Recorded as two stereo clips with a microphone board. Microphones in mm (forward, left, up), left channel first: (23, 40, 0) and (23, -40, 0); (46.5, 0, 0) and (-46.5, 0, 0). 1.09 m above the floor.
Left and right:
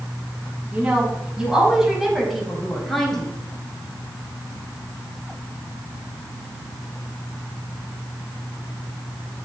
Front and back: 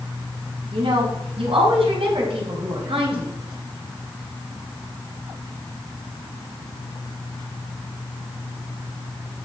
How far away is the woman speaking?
About 6.5 m.